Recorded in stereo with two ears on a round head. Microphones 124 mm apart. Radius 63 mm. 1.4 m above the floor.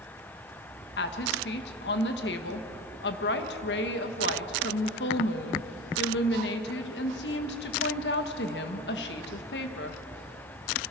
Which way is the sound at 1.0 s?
80° left.